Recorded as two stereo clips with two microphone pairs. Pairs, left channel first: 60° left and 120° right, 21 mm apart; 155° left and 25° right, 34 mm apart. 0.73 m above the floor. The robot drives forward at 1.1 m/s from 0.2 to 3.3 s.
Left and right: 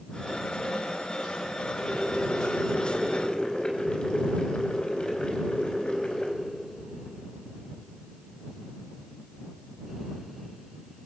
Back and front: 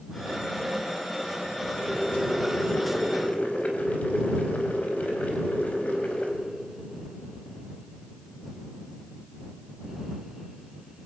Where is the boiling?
85° left, 4 m; by 6.3 s 105° left, 4 m.